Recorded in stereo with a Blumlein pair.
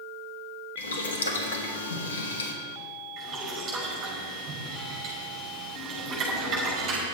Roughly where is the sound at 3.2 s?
Ahead right.